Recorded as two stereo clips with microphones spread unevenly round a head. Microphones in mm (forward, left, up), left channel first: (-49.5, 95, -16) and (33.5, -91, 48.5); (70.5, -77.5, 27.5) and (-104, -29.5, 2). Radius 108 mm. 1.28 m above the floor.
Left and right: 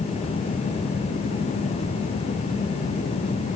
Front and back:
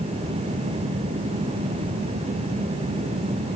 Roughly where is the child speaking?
I don't hear a child speaking.